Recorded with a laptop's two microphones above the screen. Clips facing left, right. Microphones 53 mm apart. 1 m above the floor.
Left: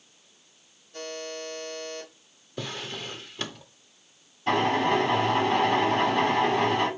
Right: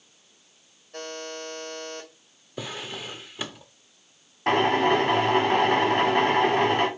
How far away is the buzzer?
About 1.8 m.